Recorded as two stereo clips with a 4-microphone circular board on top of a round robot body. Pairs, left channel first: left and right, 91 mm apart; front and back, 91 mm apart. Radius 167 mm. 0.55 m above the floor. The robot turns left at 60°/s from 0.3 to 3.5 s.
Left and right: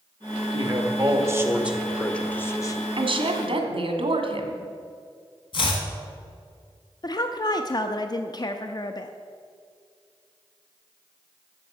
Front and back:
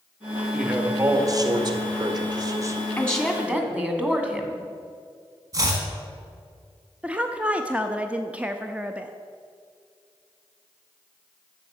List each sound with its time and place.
0.5 s a man speaking: 95° right, 1.7 m; by 2.8 s 130° left, 1.7 m
3.0 s a woman speaking: 70° right, 1.9 m; by 4.6 s 105° right, 1.9 m
5.5 s chopping: 125° left, 1.5 m
7.0 s a woman speaking: 110° left, 0.7 m